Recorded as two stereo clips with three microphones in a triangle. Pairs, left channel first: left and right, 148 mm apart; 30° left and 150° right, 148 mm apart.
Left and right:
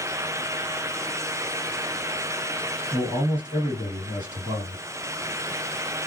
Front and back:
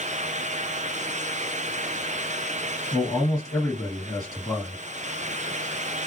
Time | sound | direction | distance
2.9 | a man speaking | 40° right | 2 m